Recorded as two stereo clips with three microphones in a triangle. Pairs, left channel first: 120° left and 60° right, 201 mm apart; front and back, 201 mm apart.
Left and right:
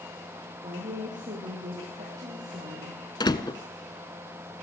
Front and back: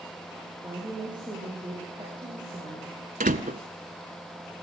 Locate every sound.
0.6 s a woman speaking: 110° right, 6.5 m
3.2 s a door slam: straight behind, 1.0 m